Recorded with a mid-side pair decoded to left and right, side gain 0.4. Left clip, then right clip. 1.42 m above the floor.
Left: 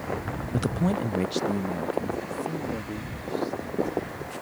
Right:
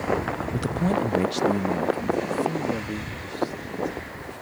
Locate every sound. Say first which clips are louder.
0.5 s a man speaking: right 1 dB; 15° left; by 4.3 s 35° right